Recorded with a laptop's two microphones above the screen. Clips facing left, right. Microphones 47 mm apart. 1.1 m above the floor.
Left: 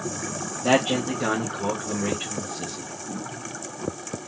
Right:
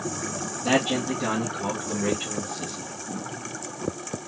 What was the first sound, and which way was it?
A man speaking, 50° left (ahead or behind).